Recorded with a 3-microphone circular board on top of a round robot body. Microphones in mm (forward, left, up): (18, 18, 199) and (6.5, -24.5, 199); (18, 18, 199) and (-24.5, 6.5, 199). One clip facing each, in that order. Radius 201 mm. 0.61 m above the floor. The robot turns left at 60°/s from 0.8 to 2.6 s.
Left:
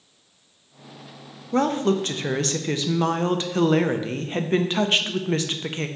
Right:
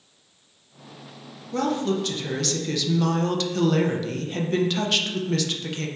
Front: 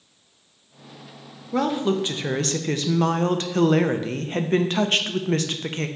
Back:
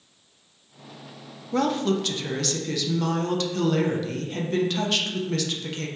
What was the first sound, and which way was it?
A woman speaking, 100° left.